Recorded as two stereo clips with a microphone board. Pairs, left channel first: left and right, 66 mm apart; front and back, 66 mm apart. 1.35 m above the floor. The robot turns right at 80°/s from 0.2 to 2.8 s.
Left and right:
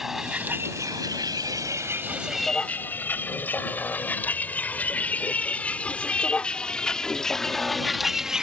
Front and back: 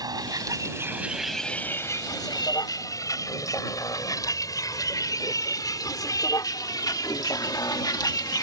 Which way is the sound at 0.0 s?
175° right.